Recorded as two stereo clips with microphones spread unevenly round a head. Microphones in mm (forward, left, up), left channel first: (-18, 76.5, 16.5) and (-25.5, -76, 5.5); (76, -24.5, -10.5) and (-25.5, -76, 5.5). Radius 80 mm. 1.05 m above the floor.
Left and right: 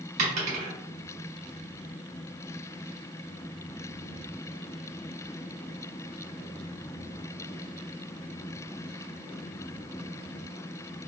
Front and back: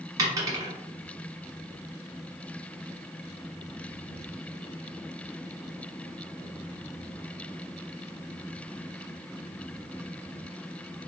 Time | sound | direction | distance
0.2 | a dropped coin | 120° right | 1.3 m